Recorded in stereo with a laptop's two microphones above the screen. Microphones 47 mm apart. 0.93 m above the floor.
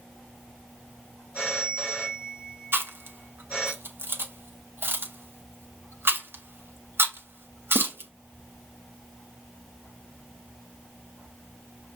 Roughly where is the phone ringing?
Left.